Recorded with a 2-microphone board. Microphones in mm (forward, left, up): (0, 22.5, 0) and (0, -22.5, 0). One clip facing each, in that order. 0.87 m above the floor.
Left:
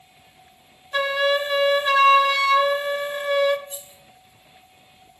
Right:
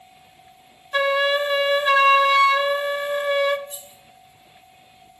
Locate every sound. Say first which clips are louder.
0.9 s a flute: right 1 dB; 10° right (ahead or behind), 0.6 m
3.7 s keys jangling: even; 5° left (ahead or behind), 4.5 m